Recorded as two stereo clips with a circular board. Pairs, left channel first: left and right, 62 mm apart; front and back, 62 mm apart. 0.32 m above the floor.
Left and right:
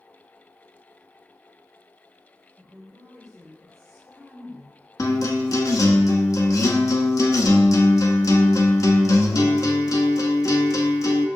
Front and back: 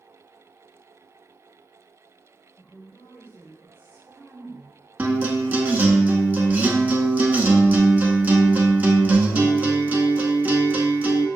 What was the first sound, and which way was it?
A woman speaking, 95° right.